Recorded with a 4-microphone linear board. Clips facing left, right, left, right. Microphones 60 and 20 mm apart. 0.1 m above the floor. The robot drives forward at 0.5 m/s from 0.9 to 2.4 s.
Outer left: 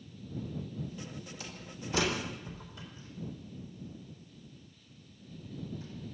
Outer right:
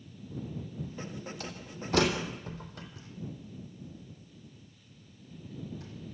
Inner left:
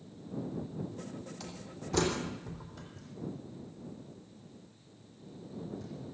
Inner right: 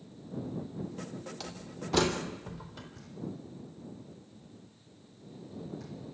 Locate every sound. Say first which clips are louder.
1.4 s a door slam: outer right 3 dB, inner right 3 dB; 50° right (ahead or behind), 3.5 m; by 2.9 s 55° right (ahead or behind), 3.5 m
3.0 s knocking: outer left 1 dB, even; 70° right (ahead or behind), 5.5 m